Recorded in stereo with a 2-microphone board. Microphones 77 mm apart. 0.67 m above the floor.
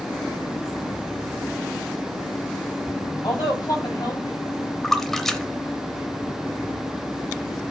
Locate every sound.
3.2 s a woman speaking: 60° left (ahead or behind), 5.5 m; by 4.7 s 55° left (ahead or behind), 4.5 m
4.8 s a splash: 5° left (ahead or behind), 0.7 m